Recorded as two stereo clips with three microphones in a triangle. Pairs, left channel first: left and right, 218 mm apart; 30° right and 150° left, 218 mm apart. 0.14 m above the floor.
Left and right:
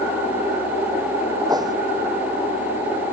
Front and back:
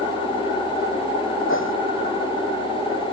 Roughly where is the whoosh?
Ahead.